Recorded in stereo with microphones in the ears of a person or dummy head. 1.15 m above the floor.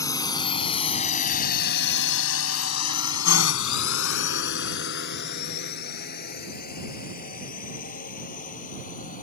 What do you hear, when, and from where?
0.0 s a drone: 20° left (ahead or behind); by 9.2 s 40° left (ahead or behind)